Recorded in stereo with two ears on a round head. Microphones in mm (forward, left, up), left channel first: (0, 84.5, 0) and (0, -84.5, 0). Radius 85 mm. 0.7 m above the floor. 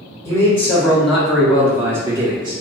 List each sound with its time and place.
0.2 s a man speaking: 15° left (ahead or behind), 1.7 m; by 2.6 s 25° right (ahead or behind), 1.5 m